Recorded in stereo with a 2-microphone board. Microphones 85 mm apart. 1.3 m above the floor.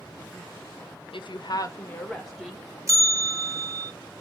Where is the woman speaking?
75° left (ahead or behind), 0.6 m; by 2.6 s 5° right (ahead or behind), 0.8 m.